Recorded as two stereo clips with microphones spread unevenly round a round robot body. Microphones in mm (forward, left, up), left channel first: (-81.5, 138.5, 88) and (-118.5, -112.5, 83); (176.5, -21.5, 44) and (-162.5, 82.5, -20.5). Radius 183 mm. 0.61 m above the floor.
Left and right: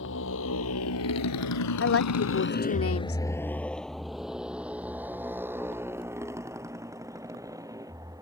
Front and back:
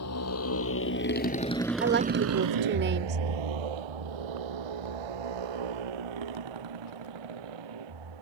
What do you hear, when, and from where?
0.0 s a motorcycle: 30° left; by 8.2 s 175° right
1.8 s a woman speaking: 105° left